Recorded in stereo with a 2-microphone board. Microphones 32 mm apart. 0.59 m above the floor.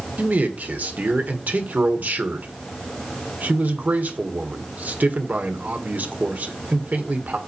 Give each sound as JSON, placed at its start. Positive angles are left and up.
{"t": 0.2, "sound": "a man speaking", "side_deg": -65, "distance_m": 1.6}